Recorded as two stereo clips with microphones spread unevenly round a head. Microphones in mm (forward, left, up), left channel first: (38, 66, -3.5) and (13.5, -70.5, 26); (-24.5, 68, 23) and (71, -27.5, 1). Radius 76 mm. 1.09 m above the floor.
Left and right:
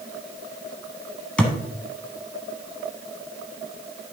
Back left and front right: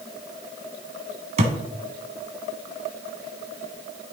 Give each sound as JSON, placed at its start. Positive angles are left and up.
{"t": 1.4, "sound": "a thud", "azimuth_deg": -10, "distance_m": 1.4}